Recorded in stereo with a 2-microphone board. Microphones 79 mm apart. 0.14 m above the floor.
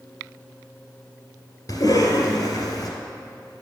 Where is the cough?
50° left (ahead or behind), 2 m.